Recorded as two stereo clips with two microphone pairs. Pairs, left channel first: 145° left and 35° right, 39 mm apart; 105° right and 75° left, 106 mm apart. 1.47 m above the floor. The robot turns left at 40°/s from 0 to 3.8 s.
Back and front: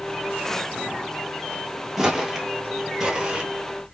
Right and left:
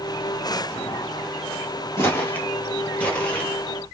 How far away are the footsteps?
About 1.6 m.